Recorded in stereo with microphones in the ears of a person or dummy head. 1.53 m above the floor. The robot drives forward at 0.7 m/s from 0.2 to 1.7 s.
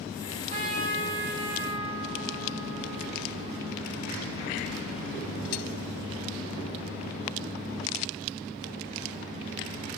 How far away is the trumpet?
About 1.8 m.